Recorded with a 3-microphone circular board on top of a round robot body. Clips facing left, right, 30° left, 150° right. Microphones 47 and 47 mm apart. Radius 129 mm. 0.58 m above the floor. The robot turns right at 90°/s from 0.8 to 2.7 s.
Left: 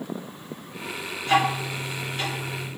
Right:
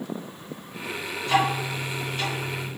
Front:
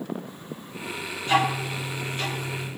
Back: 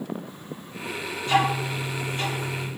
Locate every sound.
1.2 s ticking: 85° left, 1.6 m; by 2.7 s 145° right, 1.6 m